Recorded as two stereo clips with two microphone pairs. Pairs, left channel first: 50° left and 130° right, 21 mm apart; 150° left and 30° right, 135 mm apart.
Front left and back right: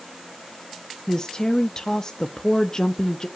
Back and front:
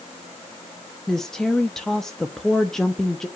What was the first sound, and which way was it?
A woman speaking, 70° left.